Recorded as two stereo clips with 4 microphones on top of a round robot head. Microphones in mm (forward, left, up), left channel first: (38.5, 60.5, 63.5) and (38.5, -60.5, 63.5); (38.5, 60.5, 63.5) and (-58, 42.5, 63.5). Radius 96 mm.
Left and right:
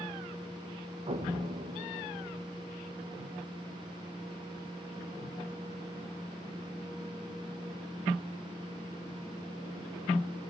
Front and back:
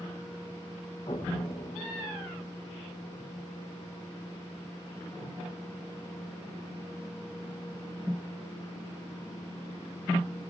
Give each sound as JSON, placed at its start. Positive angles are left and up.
{"t": 1.1, "sound": "an explosion", "azimuth_deg": -50, "distance_m": 1.6}